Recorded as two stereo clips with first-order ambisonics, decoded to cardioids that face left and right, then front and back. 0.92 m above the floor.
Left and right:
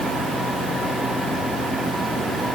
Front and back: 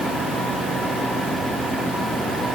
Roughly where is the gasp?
No gasp in this recording.